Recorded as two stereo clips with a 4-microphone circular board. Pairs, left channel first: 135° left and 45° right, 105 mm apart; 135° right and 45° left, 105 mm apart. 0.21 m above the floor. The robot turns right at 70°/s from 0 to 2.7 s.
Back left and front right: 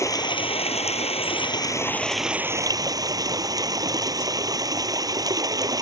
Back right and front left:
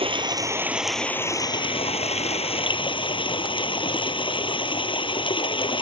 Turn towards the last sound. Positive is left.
turn(degrees=-100)